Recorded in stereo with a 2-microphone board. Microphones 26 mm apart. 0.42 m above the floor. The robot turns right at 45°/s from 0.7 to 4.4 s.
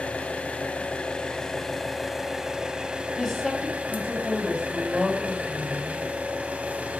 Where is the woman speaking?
160° left, 2.5 m; by 6.0 s 145° right, 2.5 m.